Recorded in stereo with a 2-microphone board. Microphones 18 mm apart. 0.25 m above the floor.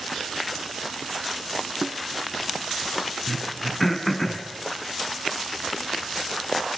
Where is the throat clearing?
10° left (ahead or behind), 3 m.